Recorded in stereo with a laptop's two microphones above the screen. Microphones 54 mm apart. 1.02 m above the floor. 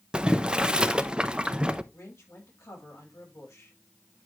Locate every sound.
0.1 s boiling: 20° right (ahead or behind), 0.7 m
1.9 s a woman speaking: 60° left (ahead or behind), 6 m